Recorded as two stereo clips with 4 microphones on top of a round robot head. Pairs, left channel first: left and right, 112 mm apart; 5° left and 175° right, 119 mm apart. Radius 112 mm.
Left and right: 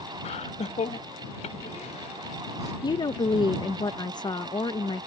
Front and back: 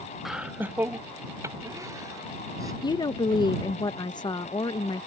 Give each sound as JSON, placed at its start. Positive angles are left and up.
{"t": 0.2, "sound": "laughter", "azimuth_deg": 95}
{"t": 2.8, "sound": "a woman speaking", "azimuth_deg": 50}